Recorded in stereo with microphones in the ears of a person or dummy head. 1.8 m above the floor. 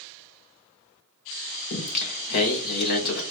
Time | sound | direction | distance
1.7 | singing | 45° left (ahead or behind) | 0.7 m